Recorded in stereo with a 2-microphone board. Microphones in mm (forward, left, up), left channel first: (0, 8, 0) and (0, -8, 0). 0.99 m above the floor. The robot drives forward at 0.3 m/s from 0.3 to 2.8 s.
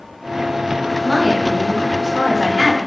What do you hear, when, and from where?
1.0 s a woman speaking: 40° right (ahead or behind), 0.9 m; by 2.8 s 30° right (ahead or behind), 1.2 m